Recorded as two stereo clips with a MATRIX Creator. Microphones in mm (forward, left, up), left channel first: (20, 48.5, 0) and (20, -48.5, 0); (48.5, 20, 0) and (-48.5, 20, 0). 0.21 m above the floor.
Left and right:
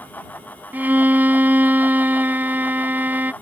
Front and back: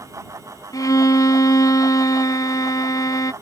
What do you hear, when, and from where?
0.7 s a violin: 25° right